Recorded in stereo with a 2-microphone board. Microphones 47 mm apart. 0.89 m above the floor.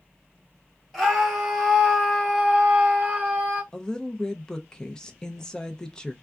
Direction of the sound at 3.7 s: 15° left (ahead or behind).